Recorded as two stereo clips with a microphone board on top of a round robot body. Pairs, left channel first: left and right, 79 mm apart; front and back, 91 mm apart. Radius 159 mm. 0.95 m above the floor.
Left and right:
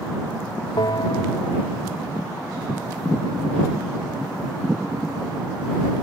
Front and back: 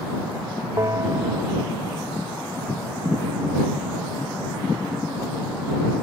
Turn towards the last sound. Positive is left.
turn(degrees=120)